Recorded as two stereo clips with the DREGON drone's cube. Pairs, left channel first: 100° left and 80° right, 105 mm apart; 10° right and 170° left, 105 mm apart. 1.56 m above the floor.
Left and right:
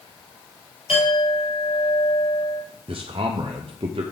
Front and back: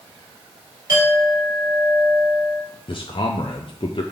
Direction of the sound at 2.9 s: 50° right.